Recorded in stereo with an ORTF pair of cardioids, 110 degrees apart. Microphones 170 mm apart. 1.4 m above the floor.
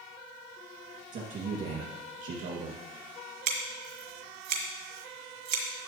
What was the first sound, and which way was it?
A man speaking, 60° right.